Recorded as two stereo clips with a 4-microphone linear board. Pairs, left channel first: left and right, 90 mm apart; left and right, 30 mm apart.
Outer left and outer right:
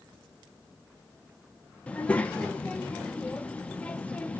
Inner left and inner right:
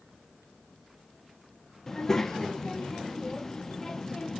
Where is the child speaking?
15° left (ahead or behind), 0.6 m.